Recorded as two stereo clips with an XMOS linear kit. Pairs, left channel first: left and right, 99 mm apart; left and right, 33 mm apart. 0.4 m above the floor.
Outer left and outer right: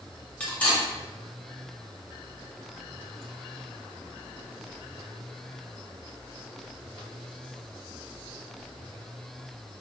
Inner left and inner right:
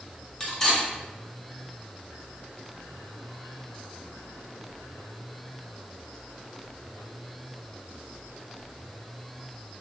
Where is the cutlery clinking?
15° left (ahead or behind), 1.0 m.